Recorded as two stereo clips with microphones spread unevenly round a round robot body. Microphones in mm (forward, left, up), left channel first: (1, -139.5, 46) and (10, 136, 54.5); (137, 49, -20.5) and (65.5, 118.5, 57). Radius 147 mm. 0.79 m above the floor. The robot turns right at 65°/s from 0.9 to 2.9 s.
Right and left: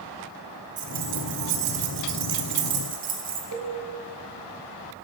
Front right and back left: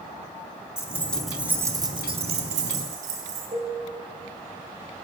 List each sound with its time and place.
0.8 s keys jangling: 25° left, 1.6 m; by 3.4 s 155° left, 1.6 m
3.5 s a cowbell: 125° left, 5 m